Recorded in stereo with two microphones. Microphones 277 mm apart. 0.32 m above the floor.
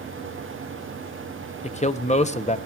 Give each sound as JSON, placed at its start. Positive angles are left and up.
{"t": 1.6, "sound": "a man speaking", "side_deg": 25, "distance_m": 0.9}